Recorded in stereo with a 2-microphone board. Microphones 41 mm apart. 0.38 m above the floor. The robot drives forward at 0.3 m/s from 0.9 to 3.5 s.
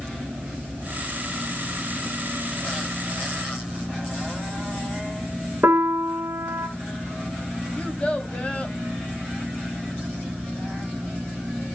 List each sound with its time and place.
5.6 s a piano: 65° right (ahead or behind), 1.3 m
7.8 s a child speaking: 25° left (ahead or behind), 1.9 m